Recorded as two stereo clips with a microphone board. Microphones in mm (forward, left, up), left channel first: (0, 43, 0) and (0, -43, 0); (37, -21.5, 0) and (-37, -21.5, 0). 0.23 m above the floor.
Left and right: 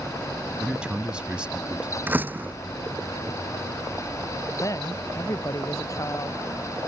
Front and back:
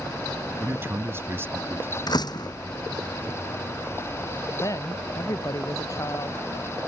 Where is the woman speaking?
40° left.